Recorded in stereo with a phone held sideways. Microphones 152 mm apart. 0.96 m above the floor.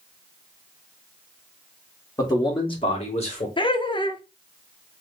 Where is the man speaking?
25° left (ahead or behind), 1.3 m; by 3.5 s 50° left (ahead or behind), 1.6 m.